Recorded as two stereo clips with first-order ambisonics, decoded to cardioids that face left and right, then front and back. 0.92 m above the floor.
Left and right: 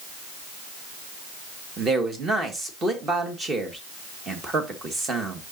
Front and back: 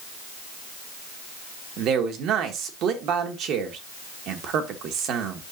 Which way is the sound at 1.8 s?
160° right.